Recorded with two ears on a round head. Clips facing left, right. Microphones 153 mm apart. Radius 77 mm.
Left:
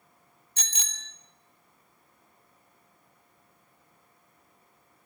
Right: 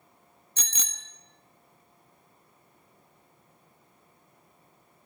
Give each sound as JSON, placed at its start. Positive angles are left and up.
{"t": 0.6, "sound": "a bicycle bell", "side_deg": -80, "distance_m": 2.0}